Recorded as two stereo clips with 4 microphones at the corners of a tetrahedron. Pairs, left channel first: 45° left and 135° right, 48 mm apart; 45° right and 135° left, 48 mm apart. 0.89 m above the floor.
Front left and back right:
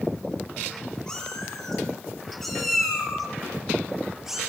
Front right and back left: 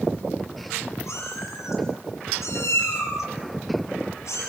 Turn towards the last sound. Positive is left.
turn(degrees=-55)